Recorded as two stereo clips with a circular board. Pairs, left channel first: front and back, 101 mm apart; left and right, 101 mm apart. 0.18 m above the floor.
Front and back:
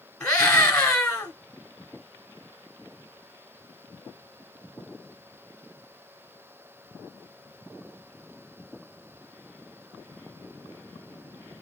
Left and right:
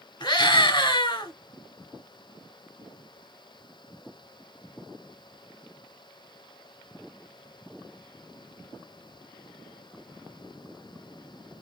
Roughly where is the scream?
Ahead left.